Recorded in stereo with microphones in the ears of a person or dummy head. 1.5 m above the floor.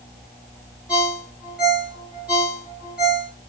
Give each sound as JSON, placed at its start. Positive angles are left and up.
{"t": 0.9, "sound": "a ringtone", "side_deg": -5, "distance_m": 1.0}